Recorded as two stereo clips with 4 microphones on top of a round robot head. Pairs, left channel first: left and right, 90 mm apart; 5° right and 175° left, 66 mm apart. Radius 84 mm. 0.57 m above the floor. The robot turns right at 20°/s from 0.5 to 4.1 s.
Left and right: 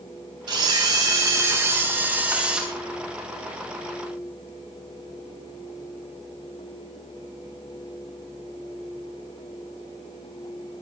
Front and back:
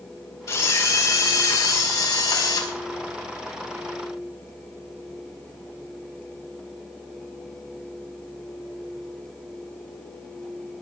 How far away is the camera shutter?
About 4 m.